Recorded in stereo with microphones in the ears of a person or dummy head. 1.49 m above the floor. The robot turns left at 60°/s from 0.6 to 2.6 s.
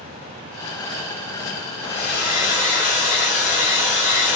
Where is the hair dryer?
75° left, 1.5 m; by 4.4 s 25° left, 1.5 m.